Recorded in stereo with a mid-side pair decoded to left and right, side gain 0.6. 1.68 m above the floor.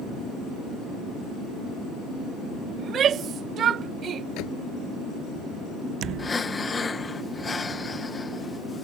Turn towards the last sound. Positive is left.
turn(degrees=20)